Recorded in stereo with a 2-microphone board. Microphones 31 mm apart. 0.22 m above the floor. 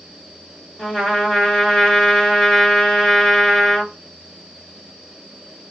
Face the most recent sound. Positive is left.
turn(degrees=20)  # may be behind; listen again after turning